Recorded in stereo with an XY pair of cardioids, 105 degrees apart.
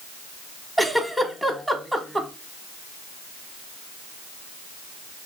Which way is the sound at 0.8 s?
Straight ahead.